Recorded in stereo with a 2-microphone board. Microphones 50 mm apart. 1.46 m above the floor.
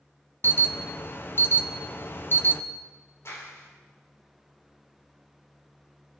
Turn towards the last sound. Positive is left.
turn(degrees=60)  # may be behind; listen again after turning